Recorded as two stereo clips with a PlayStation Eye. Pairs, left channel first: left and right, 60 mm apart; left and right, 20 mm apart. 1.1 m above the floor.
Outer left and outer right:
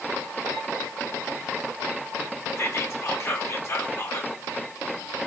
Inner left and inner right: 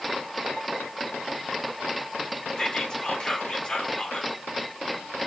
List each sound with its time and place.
2.6 s whispering: 50° left (ahead or behind), 1.8 m